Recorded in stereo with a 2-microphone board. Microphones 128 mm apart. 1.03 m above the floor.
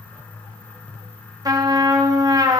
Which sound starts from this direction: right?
A trumpet, at 1.4 s.